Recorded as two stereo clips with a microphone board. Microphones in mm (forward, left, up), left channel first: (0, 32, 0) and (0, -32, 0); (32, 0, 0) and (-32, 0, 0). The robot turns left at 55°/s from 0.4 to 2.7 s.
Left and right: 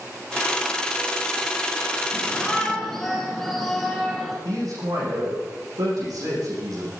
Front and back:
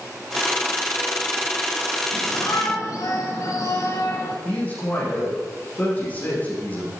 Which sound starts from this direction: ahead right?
A man speaking, at 4.5 s.